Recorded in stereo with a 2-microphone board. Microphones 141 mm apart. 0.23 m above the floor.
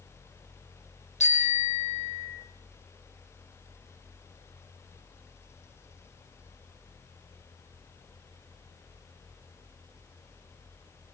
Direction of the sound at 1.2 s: 55° left (ahead or behind).